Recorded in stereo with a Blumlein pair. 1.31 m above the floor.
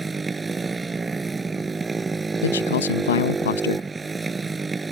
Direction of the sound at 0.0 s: 10° right.